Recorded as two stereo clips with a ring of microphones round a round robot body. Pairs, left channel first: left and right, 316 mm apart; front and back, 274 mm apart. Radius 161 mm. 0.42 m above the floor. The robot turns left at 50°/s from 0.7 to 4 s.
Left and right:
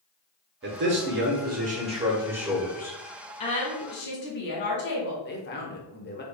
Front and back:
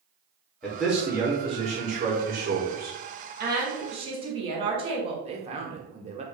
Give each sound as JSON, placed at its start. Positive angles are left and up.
{"t": 0.6, "sound": "a man speaking", "azimuth_deg": -85, "distance_m": 1.0}
{"t": 3.4, "sound": "a woman speaking", "azimuth_deg": 150, "distance_m": 1.4}
{"t": 5.2, "sound": "a man speaking", "azimuth_deg": 125, "distance_m": 0.9}